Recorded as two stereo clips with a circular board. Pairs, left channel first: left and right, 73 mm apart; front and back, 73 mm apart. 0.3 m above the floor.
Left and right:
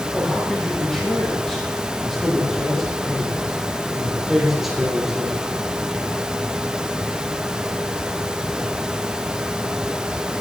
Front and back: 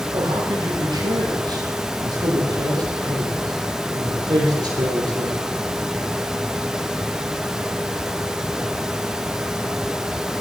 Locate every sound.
0.1 s a man speaking: 175° left, 9.5 m; by 5.4 s 170° right, 7 m